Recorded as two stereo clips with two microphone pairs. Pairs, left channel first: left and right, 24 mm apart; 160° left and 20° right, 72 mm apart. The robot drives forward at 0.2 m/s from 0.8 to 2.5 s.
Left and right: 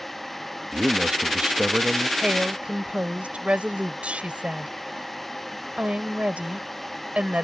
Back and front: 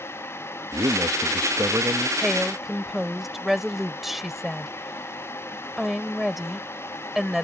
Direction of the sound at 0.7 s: 50° right.